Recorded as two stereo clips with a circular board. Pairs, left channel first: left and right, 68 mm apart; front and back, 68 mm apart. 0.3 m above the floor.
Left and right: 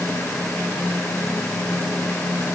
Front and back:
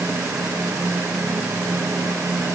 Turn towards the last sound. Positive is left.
No sound to turn to.